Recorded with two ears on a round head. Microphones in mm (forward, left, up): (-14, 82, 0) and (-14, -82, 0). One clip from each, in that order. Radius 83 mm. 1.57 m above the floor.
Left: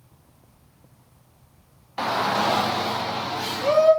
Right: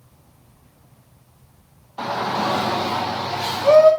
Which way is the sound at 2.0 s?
55° left (ahead or behind).